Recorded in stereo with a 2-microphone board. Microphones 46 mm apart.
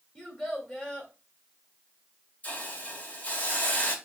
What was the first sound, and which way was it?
A child speaking, 5° left (ahead or behind).